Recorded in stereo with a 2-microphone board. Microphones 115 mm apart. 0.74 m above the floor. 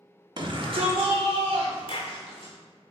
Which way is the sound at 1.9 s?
45° left (ahead or behind).